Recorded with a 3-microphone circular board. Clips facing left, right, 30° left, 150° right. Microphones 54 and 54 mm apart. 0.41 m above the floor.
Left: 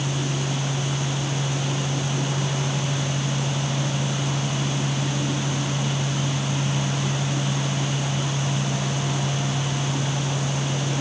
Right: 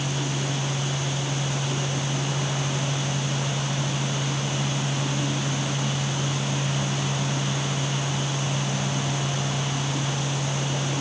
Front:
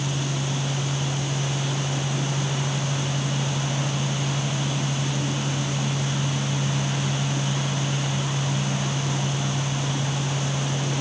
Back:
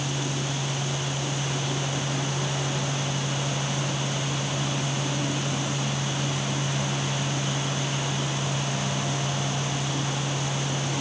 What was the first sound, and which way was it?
Only background noise.